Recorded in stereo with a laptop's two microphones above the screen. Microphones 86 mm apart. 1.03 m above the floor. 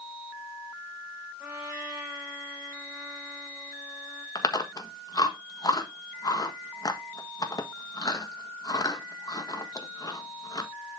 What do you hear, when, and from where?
1.4 s a trumpet: 15° right (ahead or behind), 5 m
4.3 s chewing: 45° left (ahead or behind), 1.4 m